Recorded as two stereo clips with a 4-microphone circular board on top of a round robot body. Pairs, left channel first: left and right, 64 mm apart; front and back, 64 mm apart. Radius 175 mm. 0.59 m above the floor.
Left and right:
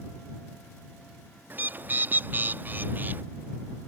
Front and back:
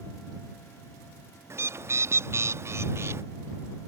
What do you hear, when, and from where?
1.5 s a bird: 145° right